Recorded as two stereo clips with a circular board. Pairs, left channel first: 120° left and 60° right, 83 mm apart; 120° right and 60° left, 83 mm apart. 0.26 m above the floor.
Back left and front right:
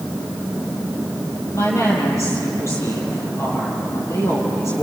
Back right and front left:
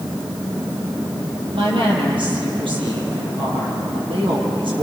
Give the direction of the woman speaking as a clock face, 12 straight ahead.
10 o'clock.